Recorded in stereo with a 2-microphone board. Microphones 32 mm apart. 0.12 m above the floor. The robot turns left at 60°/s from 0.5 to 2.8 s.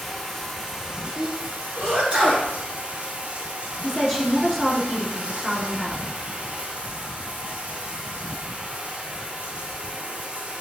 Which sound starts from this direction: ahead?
Running water, at 0.0 s.